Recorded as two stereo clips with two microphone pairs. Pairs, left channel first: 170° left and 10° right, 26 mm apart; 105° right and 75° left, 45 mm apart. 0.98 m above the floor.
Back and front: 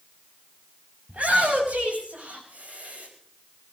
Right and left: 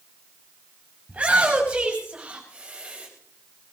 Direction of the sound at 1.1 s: 15° left.